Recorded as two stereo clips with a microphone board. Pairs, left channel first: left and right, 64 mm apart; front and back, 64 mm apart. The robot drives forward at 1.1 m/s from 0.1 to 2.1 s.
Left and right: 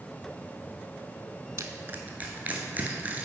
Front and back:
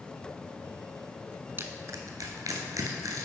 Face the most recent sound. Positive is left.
turn(degrees=-155)